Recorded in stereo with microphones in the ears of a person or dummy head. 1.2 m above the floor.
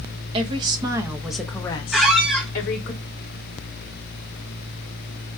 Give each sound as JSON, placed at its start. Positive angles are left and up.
{"t": 0.3, "sound": "a woman speaking", "side_deg": -30, "distance_m": 0.9}
{"t": 1.9, "sound": "a squeak", "side_deg": -5, "distance_m": 0.6}